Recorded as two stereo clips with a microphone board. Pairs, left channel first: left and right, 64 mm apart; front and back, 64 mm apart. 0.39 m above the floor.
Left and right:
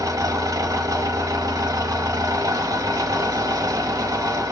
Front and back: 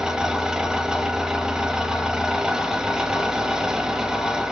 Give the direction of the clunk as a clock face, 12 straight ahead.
No clunk in this recording.